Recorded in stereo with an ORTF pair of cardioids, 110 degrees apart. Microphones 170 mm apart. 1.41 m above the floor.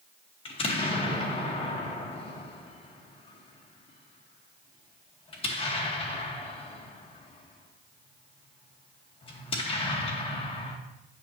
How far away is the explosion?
About 1.5 m.